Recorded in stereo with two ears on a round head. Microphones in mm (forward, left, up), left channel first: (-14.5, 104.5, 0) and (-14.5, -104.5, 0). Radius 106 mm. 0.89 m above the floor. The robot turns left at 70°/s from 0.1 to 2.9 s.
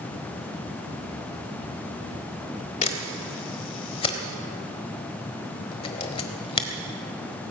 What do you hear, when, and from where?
2.8 s a camera shutter: 30° left (ahead or behind), 1.3 m; by 6.7 s 25° left (ahead or behind), 1.3 m